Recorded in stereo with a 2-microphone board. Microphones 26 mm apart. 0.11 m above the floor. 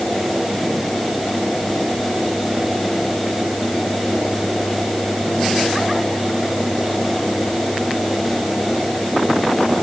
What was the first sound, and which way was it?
Only background noise.